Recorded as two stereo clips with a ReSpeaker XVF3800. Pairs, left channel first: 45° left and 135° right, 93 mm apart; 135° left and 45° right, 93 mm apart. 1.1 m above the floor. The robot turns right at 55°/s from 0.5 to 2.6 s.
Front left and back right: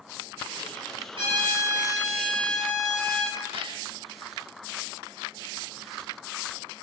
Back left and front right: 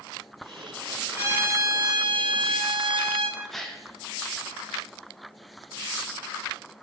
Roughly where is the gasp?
Behind right.